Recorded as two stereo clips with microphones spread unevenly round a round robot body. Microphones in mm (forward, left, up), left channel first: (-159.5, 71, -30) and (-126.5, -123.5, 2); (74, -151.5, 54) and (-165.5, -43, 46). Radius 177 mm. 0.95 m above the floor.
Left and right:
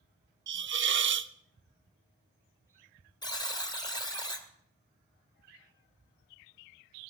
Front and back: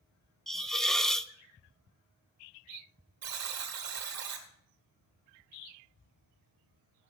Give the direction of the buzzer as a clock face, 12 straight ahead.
6 o'clock.